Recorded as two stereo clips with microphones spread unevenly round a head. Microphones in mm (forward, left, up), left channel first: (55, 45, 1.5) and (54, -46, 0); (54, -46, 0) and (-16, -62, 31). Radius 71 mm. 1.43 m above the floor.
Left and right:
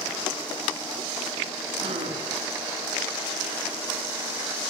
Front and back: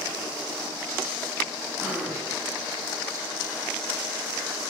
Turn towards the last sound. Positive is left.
turn(degrees=-115)